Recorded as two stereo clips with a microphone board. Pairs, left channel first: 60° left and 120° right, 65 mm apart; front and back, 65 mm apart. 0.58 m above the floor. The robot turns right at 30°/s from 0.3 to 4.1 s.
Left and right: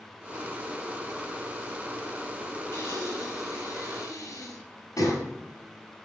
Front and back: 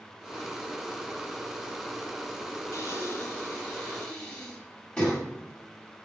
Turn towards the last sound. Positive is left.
turn(degrees=80)